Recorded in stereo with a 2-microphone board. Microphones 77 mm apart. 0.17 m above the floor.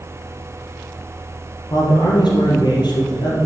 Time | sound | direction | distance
1.7 | a man speaking | 65° left (ahead or behind) | 3.5 m